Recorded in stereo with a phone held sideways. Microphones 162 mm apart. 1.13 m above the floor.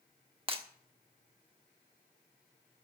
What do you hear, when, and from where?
0.5 s breaking glass: 35° right (ahead or behind), 1.2 m